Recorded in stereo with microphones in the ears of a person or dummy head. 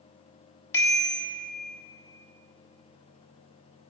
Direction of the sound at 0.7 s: 15° left (ahead or behind).